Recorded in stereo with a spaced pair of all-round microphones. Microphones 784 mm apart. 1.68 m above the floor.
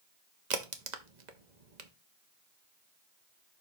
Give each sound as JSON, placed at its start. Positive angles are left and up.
{"t": 0.5, "sound": "a crack", "side_deg": -60, "distance_m": 1.1}